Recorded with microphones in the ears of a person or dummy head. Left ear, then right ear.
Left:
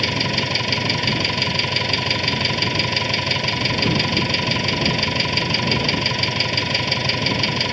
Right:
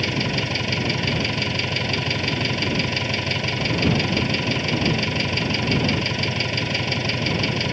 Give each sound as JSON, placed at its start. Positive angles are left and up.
{"t": 0.0, "sound": "an engine running", "side_deg": 15}